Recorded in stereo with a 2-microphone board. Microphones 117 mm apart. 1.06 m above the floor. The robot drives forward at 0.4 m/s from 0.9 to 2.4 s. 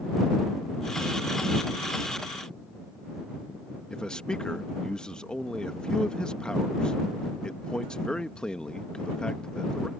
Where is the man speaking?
10° left (ahead or behind).